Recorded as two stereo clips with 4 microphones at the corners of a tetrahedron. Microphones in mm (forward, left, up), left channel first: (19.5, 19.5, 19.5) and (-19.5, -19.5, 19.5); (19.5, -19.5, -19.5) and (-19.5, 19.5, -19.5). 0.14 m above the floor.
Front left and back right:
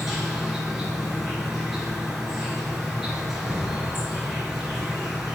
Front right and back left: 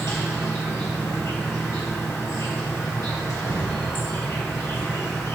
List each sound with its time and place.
0.0 s an insect: 50° right, 2.5 m